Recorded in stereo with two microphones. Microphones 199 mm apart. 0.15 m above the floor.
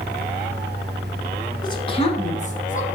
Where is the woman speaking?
20° left (ahead or behind), 1.3 m; by 2.9 s 40° left (ahead or behind), 1.7 m.